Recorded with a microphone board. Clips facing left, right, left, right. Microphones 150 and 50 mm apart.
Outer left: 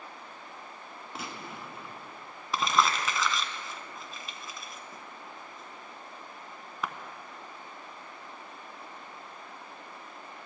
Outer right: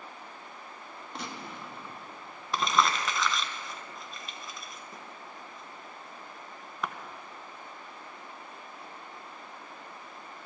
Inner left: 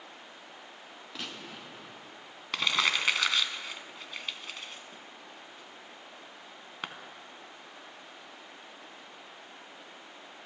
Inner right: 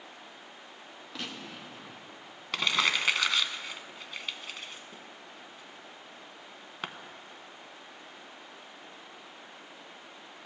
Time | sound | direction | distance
1.1 | a gunshot | 5° left (ahead or behind) | 1.3 m
2.5 | crumpling | centre (ahead or behind) | 0.9 m